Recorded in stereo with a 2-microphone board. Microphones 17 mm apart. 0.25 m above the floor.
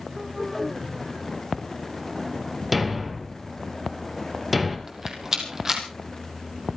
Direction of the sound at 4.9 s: 20° right (ahead or behind).